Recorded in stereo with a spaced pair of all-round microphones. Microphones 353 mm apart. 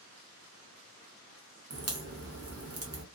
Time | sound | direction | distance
1.7 | a crack | 40° right (ahead or behind) | 0.7 m